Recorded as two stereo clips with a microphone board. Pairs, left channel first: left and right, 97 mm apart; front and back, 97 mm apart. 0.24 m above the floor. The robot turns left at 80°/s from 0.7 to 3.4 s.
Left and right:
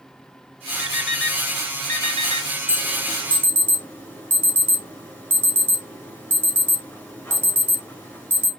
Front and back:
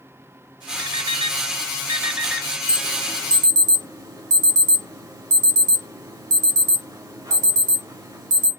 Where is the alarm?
145° right, 2.5 m; by 8.5 s 155° left, 2.5 m.